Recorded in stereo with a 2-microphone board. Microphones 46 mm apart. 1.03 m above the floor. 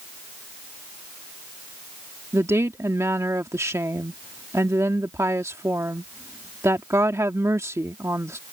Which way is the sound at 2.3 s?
80° right.